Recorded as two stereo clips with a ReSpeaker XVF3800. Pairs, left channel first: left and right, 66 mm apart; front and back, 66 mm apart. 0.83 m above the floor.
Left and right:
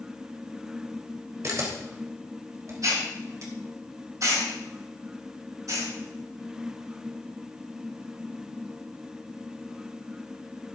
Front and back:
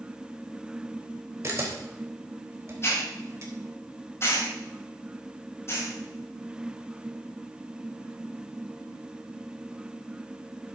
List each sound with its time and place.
1.4 s a camera shutter: 130° right, 3.5 m
2.8 s a hiss: 50° right, 5.5 m